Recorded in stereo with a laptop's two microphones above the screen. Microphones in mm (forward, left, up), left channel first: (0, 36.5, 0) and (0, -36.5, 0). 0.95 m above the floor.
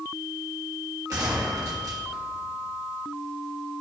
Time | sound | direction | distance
1.1 | a gunshot | 50° right (ahead or behind) | 1.3 m